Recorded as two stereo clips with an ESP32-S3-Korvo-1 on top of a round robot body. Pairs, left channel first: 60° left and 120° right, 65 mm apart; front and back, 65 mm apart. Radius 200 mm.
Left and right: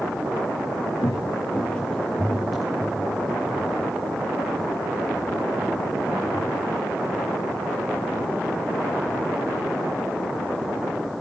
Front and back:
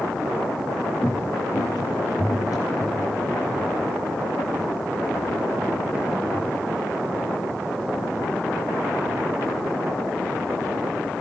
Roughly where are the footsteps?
Left.